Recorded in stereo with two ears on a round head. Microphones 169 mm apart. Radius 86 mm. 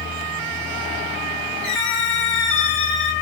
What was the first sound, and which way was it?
A squeak, 5° left (ahead or behind).